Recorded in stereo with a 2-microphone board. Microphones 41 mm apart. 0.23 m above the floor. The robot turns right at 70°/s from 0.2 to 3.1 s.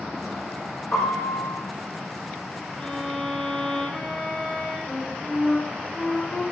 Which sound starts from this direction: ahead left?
A piano, at 0.9 s.